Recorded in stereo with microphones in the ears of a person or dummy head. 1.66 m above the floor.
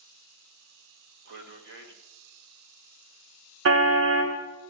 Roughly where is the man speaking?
Right.